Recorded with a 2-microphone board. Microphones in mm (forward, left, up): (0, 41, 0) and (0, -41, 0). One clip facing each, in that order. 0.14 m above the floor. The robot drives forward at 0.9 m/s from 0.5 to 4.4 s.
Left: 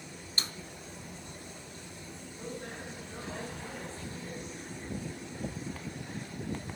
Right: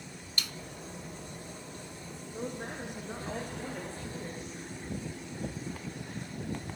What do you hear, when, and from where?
0.4 s a snare drum: 35° left (ahead or behind), 0.5 m
2.3 s a woman speaking: 65° right (ahead or behind), 7.5 m; by 4.4 s 55° right (ahead or behind), 8.5 m